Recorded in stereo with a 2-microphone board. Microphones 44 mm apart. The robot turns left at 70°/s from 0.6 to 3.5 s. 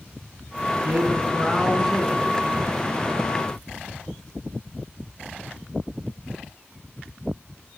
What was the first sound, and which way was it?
A man speaking, 110° right.